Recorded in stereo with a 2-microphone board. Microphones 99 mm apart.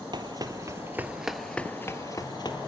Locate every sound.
0.1 s running footsteps: 45° right (ahead or behind), 1.5 m; by 2.7 s 50° left (ahead or behind), 1.6 m